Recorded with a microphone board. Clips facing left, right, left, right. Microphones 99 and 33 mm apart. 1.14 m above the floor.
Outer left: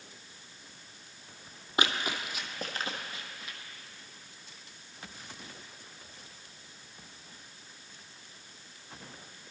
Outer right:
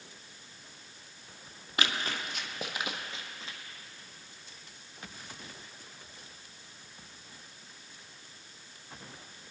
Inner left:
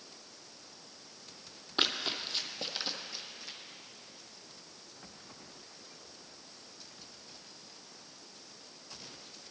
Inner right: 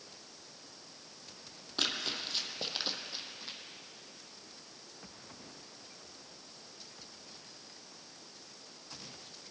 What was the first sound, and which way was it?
Running footsteps, 25° left (ahead or behind).